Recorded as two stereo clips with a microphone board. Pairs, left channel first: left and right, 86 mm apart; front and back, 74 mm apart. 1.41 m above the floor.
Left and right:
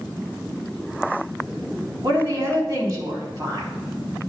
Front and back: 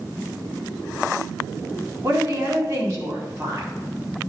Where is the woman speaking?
140° right, 3.5 m.